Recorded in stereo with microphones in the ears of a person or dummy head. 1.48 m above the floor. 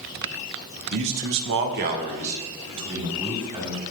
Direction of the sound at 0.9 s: 60° right (ahead or behind).